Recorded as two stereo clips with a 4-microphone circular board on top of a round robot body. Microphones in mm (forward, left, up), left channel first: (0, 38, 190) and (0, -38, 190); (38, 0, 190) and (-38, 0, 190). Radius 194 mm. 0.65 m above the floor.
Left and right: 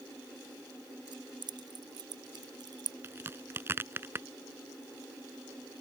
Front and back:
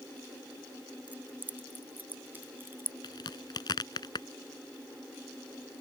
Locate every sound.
1.1 s keys jangling: 110° right; by 2.9 s 120° right
3.0 s a crack: 30° right